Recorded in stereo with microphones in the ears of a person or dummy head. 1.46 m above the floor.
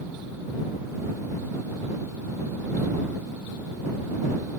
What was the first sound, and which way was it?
Only background noise.